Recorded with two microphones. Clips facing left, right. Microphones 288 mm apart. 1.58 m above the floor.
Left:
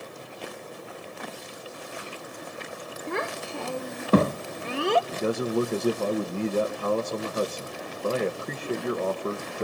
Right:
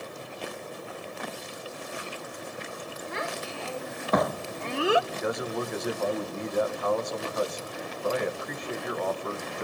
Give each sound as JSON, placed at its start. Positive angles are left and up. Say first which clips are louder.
{"t": 3.1, "sound": "a child speaking", "louder": "left 5 dB", "side_deg": 65, "distance_m": 1.0}
{"t": 5.1, "sound": "a man speaking", "louder": "left 5 dB", "side_deg": 35, "distance_m": 1.4}